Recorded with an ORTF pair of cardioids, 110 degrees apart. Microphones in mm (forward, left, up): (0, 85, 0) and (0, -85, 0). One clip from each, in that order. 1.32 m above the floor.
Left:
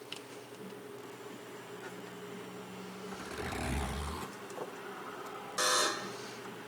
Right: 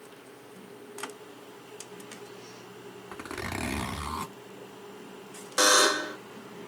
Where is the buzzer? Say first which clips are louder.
Right 9 dB; 50° right, 0.6 m.